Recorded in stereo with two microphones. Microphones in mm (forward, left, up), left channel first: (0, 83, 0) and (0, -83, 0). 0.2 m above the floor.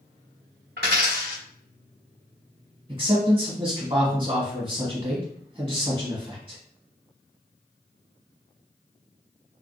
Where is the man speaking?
30° right (ahead or behind), 1.2 m.